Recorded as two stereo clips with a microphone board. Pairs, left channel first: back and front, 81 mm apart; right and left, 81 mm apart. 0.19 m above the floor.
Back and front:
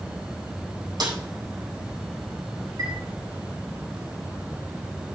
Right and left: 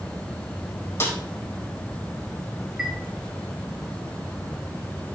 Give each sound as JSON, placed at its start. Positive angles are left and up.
{"t": 1.0, "sound": "a snare drum", "azimuth_deg": -35, "distance_m": 3.5}
{"t": 2.8, "sound": "a chime", "azimuth_deg": 5, "distance_m": 1.7}